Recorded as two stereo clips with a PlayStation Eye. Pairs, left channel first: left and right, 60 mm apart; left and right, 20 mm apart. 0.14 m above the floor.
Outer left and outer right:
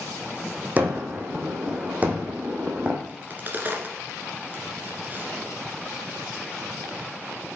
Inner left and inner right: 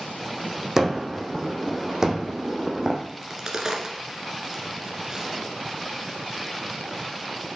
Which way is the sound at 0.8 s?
30° right (ahead or behind).